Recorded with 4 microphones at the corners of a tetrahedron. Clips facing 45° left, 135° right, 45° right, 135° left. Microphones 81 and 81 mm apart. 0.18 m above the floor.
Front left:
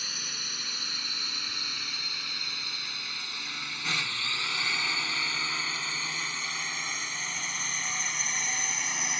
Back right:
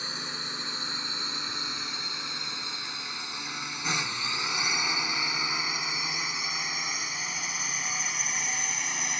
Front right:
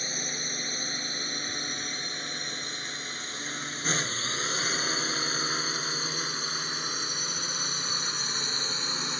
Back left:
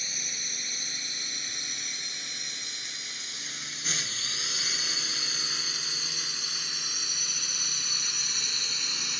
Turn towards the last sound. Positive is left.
turn(degrees=-45)